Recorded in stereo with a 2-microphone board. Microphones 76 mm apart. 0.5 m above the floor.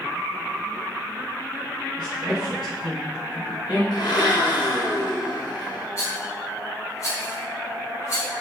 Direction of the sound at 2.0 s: 70° left (ahead or behind).